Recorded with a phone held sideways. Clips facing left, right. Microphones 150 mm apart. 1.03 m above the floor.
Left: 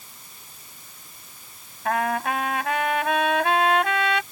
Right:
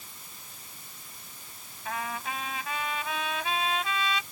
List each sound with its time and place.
1.9 s a trumpet: 65° left (ahead or behind)